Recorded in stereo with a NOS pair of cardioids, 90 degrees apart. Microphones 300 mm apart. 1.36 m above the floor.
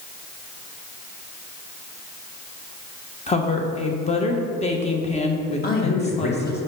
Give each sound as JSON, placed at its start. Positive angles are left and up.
{"t": 3.3, "sound": "a woman speaking", "azimuth_deg": 20, "distance_m": 1.3}
{"t": 5.6, "sound": "a man speaking", "azimuth_deg": 30, "distance_m": 1.9}